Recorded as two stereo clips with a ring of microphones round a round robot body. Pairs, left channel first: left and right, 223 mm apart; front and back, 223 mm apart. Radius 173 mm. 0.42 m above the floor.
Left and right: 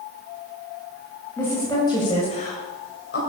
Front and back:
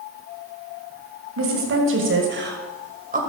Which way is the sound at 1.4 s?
175° left.